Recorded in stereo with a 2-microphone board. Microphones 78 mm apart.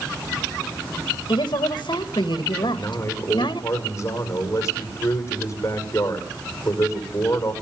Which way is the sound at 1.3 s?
75° left (ahead or behind).